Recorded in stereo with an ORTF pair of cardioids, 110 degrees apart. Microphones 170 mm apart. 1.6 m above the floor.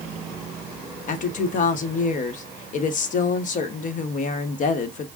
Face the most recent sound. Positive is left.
turn(degrees=50)